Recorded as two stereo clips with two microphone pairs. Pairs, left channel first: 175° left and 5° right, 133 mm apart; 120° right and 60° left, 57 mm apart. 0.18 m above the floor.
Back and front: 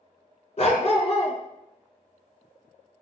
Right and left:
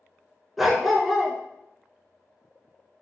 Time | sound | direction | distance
0.6 | a dog barking | 145° left | 0.8 m